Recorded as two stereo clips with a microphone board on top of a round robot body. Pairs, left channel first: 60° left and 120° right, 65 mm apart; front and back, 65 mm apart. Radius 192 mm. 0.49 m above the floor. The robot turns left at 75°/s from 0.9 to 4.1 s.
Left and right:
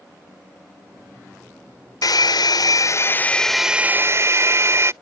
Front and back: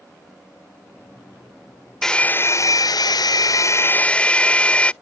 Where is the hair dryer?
85° left; by 4.9 s 70° right.